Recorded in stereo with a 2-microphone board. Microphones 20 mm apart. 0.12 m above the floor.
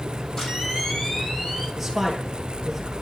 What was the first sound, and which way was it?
A camera shutter, 25° left (ahead or behind).